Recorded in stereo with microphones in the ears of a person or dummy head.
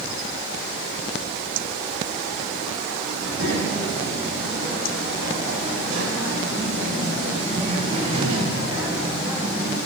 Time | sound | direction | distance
3.1 | a child speaking | 70° right (ahead or behind) | 6.5 m